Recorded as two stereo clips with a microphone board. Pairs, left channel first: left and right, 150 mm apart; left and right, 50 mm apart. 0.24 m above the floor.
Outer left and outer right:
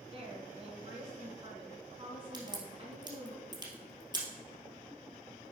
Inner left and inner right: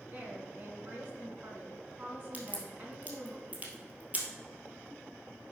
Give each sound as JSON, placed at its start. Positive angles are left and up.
{"t": 0.1, "sound": "a woman speaking", "side_deg": -40, "distance_m": 2.0}
{"t": 2.3, "sound": "a crack", "side_deg": -30, "distance_m": 2.0}